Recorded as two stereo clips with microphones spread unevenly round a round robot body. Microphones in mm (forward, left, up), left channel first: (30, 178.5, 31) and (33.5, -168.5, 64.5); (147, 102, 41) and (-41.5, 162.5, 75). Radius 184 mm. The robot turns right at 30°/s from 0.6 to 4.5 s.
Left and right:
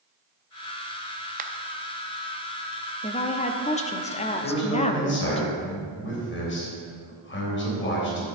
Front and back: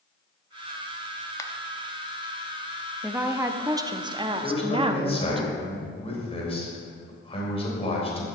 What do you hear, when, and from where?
1.4 s a finger snap: 40° right, 0.7 m; by 1.5 s 35° right, 0.7 m
3.0 s a woman speaking: 70° left, 0.8 m; by 5.4 s 115° left, 0.8 m
4.4 s a man speaking: 35° left, 3.5 m; by 8.2 s 40° left, 3.5 m